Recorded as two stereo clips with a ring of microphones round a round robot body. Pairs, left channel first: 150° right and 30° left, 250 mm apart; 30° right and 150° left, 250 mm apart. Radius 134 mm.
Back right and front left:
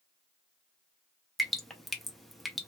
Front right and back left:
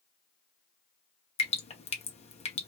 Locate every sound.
1.4 s dripping: 60° right, 0.7 m